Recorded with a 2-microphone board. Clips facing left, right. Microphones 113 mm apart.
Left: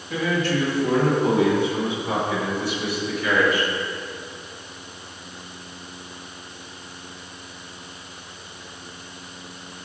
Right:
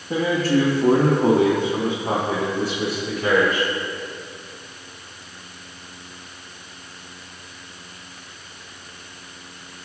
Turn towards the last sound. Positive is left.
turn(degrees=-60)  # may be behind; listen again after turning